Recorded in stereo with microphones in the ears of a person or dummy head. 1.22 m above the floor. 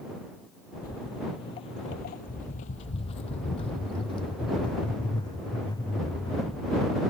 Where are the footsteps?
25° left (ahead or behind); by 7.0 s 15° left (ahead or behind).